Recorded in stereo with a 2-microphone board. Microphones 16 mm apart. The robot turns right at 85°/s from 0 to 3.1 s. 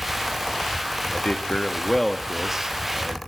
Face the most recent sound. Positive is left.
turn(degrees=-105)